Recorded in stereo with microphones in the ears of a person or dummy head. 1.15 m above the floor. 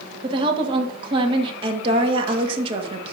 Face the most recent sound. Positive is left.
turn(degrees=-35)  # may be behind; listen again after turning